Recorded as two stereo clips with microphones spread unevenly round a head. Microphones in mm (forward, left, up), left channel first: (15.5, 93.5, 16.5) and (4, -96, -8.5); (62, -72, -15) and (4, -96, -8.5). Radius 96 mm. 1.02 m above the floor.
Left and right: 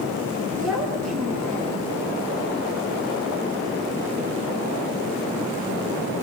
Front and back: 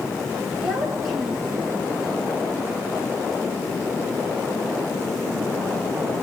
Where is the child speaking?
175° left, 8 m.